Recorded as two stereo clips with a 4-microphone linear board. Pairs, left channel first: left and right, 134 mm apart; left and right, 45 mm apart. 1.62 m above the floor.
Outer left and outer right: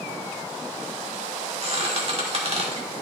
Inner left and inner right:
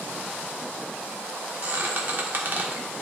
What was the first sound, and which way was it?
A squeak, 50° right (ahead or behind).